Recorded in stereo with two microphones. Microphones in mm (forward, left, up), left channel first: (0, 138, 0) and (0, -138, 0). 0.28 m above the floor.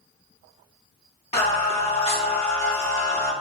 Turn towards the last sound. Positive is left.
turn(degrees=25)  # may be behind; listen again after turning